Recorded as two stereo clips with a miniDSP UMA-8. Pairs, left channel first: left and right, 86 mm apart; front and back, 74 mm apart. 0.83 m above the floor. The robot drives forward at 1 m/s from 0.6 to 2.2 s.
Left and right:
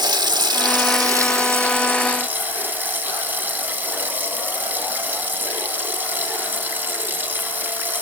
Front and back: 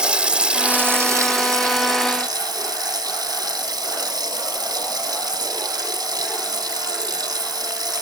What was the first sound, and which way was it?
Running water, 105° right.